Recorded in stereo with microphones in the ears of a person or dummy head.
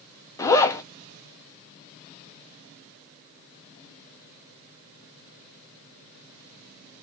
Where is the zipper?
15° left (ahead or behind), 0.7 m.